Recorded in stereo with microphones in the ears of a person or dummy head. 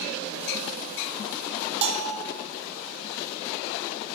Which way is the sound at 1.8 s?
40° right (ahead or behind).